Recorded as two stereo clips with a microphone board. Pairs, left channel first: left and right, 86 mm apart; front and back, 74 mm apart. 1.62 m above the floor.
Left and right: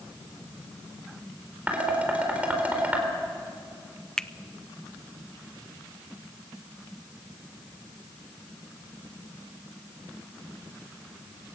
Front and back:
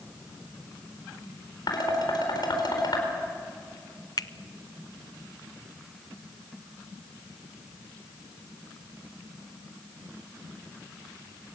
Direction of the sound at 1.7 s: 15° right.